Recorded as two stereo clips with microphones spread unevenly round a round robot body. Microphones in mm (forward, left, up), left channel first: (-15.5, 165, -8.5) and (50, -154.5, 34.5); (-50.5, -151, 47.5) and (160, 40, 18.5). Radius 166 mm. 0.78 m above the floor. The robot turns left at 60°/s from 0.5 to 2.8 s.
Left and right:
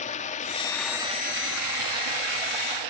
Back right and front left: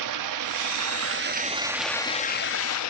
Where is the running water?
35° left, 0.7 m; by 2.9 s 105° right, 0.7 m.